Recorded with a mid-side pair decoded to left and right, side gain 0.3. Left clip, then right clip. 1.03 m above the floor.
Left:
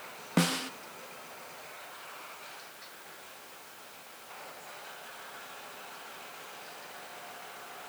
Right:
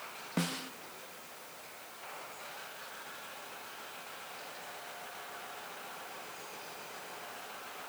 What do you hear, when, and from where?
0.4 s a snare drum: 70° left, 0.5 m